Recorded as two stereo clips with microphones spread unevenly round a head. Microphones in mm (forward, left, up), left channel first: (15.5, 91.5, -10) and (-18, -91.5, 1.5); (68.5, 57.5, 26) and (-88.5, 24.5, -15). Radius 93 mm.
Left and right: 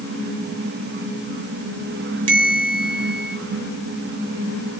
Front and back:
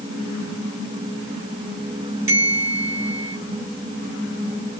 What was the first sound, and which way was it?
A bell, 90° right.